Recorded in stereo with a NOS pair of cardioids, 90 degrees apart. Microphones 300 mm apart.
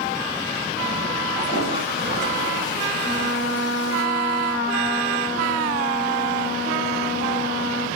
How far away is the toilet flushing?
About 6 m.